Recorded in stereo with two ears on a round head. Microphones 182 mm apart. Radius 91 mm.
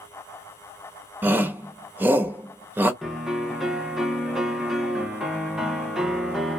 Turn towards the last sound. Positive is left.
turn(degrees=0)  # may be behind; listen again after turning